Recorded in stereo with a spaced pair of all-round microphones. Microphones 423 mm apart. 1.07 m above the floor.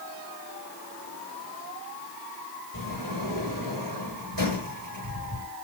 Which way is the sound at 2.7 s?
60° right (ahead or behind).